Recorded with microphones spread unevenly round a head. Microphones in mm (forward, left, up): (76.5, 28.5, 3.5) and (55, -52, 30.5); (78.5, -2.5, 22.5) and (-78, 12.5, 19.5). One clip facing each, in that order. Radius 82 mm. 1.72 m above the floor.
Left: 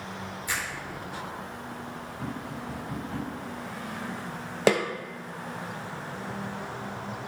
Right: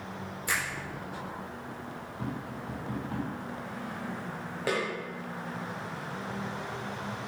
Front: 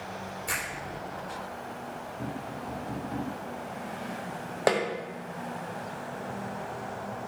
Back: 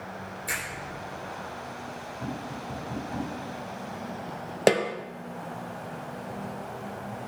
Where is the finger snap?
100° right, 4 m.